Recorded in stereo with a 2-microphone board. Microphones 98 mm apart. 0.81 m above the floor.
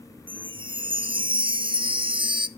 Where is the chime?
55° right (ahead or behind), 0.7 m.